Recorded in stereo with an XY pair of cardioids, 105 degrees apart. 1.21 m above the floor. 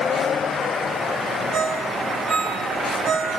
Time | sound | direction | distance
1.5 | a ringtone | 55° right | 4 m